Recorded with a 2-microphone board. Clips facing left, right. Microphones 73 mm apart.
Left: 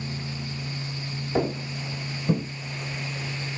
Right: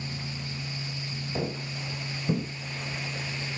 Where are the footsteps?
40° left (ahead or behind), 2.5 m; by 2.5 s 10° left (ahead or behind), 2 m.